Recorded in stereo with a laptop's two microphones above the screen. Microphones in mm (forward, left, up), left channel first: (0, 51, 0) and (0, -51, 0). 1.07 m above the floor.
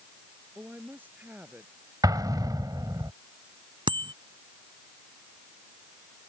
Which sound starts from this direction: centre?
A woman speaking, at 0.6 s.